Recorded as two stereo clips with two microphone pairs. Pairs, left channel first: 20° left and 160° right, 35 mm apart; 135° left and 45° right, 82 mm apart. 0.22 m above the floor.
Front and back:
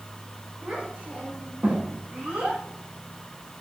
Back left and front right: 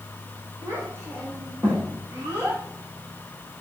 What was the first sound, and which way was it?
A child speaking, 100° right.